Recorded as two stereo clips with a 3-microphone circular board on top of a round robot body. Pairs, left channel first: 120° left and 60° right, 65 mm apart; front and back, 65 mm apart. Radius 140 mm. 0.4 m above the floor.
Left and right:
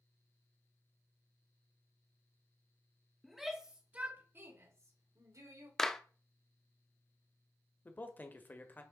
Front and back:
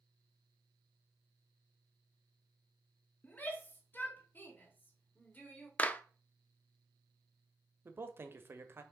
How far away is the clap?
About 0.8 m.